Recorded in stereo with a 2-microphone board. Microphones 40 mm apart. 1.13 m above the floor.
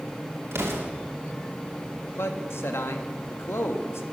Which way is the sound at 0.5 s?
85° right.